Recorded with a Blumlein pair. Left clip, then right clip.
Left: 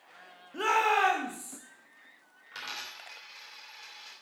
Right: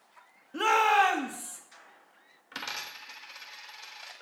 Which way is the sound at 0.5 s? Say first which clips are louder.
Right 3 dB; 5° right.